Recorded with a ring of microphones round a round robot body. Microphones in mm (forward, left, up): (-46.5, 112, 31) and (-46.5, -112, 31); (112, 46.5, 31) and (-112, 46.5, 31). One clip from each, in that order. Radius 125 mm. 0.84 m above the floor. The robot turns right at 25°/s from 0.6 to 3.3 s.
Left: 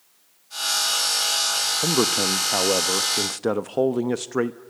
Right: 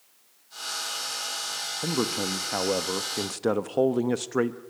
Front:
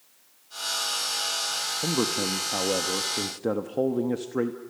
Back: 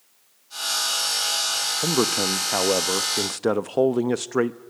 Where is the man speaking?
140° left, 0.8 m; by 4.6 s 175° left, 0.8 m.